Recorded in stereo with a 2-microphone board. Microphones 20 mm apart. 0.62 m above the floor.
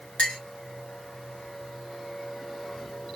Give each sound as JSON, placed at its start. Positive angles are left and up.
{"t": 0.2, "sound": "a clink", "side_deg": 70, "distance_m": 1.6}